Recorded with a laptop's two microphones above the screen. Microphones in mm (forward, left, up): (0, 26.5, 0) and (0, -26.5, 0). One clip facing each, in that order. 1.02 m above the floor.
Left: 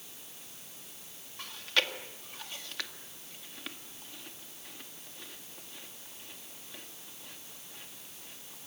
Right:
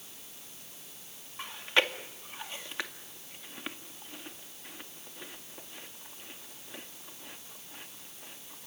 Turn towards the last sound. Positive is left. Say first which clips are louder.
# right 3 dB
turn(degrees=-25)  # may be behind; listen again after turning